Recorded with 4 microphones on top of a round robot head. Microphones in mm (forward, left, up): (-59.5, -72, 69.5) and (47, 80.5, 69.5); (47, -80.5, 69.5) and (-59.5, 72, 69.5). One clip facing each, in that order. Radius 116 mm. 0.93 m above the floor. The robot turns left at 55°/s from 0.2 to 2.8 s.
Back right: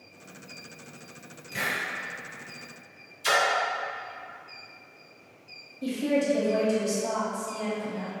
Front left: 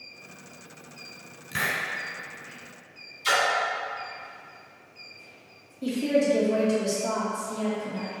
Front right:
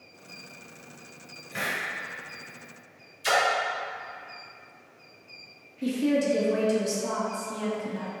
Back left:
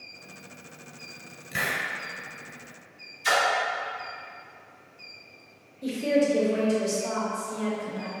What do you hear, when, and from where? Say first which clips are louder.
1.5 s a hiss: front left 1 dB, back left 1 dB; 80° left, 1.5 m; by 1.8 s 65° left, 1.5 m
3.2 s a splash: even, front right 1 dB; 105° right, 1.5 m
5.8 s a woman speaking: front left 2 dB, back left 1 dB; 45° right, 1.6 m